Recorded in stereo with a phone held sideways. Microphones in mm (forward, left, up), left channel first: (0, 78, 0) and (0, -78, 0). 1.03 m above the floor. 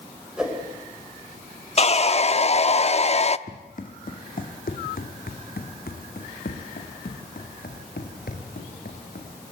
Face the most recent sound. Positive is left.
turn(degrees=70)  # may be behind; listen again after turning